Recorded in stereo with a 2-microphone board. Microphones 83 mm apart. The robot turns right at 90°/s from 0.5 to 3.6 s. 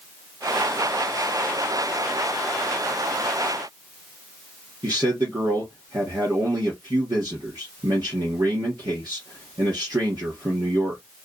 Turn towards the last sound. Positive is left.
turn(degrees=-50)  # may be behind; listen again after turning